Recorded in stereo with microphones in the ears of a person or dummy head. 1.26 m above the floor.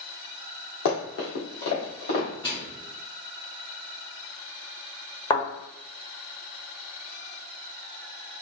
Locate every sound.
0.8 s running footsteps: 45° left (ahead or behind), 1.9 m
2.4 s a microwave: 25° left (ahead or behind), 1.5 m
5.3 s a thud: 20° left (ahead or behind), 1.2 m